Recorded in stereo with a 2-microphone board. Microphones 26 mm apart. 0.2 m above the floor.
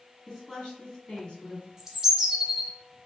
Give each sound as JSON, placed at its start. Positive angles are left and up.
{"t": 0.3, "sound": "a woman speaking", "side_deg": 20, "distance_m": 1.3}
{"t": 1.8, "sound": "a bird", "side_deg": -15, "distance_m": 0.6}